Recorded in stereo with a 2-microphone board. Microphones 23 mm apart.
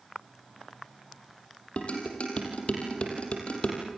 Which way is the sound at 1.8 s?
50° left (ahead or behind).